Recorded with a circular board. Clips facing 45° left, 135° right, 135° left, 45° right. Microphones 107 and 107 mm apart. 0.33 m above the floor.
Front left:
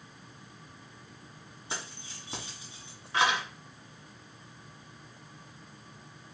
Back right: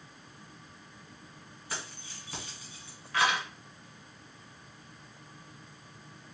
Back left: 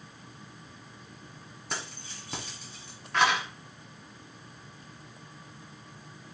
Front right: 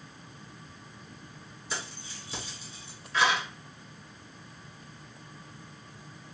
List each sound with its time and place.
1.7 s keys jangling: 110° left, 1.8 m